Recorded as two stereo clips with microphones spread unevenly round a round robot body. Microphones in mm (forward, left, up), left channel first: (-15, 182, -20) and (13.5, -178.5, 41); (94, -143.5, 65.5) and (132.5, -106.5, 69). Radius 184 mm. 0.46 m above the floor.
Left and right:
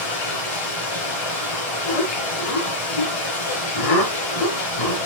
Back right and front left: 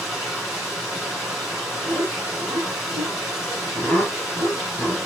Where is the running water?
100° left, 7 m.